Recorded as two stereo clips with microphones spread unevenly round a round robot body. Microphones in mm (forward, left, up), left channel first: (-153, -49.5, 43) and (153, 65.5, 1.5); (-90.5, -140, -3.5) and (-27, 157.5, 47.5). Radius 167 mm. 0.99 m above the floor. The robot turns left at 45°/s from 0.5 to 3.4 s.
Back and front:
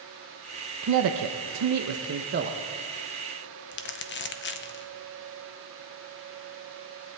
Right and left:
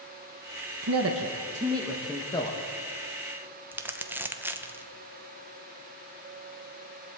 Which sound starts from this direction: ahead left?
A man speaking, at 0.8 s.